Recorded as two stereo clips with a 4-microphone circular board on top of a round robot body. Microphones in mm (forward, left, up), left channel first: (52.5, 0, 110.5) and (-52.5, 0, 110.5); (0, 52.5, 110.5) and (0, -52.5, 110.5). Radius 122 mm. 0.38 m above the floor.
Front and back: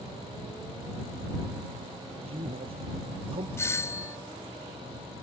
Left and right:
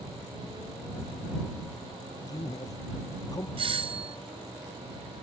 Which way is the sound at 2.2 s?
145° left.